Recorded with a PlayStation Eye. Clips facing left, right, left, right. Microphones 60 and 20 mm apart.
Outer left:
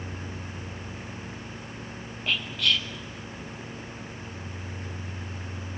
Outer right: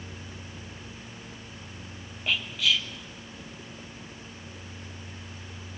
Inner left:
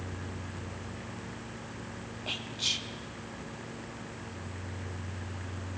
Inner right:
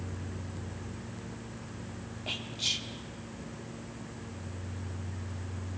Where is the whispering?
5° right (ahead or behind), 0.8 m.